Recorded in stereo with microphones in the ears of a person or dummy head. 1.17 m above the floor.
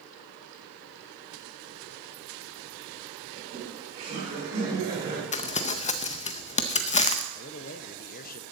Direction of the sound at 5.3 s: 35° left (ahead or behind).